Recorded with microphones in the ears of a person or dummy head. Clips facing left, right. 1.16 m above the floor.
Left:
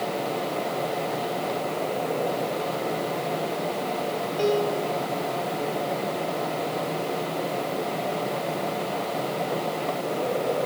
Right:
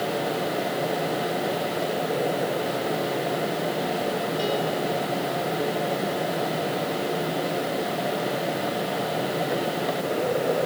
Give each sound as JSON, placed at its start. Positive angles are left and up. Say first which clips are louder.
{"t": 4.4, "sound": "a piano", "louder": "left 6 dB", "side_deg": 65, "distance_m": 4.5}